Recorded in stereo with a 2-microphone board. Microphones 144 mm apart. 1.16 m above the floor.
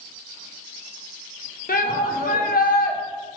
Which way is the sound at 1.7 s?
70° left (ahead or behind).